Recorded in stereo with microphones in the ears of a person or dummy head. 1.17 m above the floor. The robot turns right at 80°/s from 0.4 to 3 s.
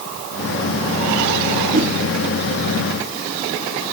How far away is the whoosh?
About 0.8 m.